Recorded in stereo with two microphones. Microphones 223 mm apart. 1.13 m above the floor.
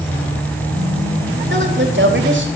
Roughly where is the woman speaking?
Right.